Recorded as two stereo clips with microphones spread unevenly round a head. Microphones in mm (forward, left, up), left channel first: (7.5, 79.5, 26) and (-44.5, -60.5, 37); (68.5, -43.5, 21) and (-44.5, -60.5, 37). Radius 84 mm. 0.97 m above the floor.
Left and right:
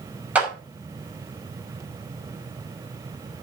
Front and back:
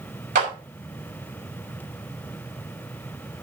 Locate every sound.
0.3 s a clap: 170° left, 5.5 m